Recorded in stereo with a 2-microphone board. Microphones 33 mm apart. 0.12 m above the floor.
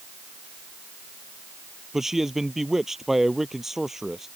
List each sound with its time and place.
1.9 s a man speaking: 10° right (ahead or behind)